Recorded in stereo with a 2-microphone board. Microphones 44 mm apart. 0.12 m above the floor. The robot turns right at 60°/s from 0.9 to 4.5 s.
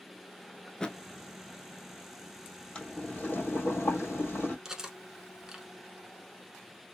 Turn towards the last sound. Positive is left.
turn(degrees=-10)  # may be behind; listen again after turning